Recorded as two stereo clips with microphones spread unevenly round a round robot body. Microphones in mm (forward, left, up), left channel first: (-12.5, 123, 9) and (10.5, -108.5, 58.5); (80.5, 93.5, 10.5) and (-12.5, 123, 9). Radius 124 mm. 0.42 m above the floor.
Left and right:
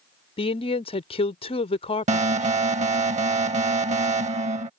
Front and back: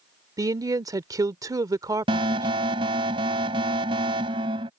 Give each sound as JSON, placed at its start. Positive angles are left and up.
{"t": 0.4, "sound": "a woman speaking", "azimuth_deg": 135}
{"t": 2.1, "sound": "an alarm", "azimuth_deg": -150}